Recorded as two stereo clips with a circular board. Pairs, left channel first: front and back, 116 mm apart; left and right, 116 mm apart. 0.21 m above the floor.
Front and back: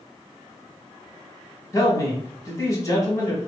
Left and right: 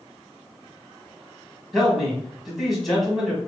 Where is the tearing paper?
I don't hear tearing paper.